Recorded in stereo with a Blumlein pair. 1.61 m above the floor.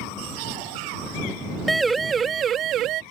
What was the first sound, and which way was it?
A siren, 5° right.